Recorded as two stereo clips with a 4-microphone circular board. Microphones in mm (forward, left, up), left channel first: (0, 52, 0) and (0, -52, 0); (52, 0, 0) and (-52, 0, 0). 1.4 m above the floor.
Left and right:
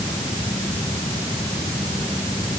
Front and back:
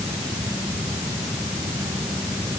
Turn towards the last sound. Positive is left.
No sound to turn to.